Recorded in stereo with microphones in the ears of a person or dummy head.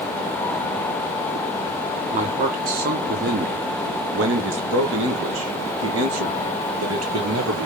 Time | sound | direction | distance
2.1 | a man speaking | 40° right (ahead or behind) | 2.5 m